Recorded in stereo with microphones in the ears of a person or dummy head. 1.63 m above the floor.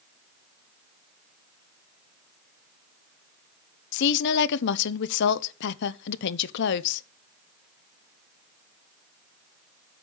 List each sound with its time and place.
3.9 s a woman speaking: 65° left (ahead or behind), 0.8 m